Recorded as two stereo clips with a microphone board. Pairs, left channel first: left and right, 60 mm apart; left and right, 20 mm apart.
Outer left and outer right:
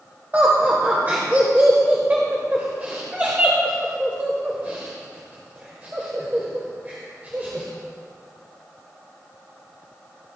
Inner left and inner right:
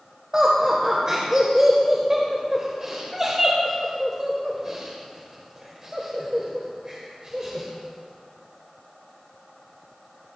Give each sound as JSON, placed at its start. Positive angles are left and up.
{"t": 0.3, "sound": "laughter", "side_deg": -30, "distance_m": 1.5}